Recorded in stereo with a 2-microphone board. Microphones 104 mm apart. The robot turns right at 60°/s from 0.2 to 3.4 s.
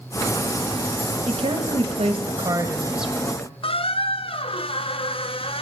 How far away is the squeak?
About 0.6 m.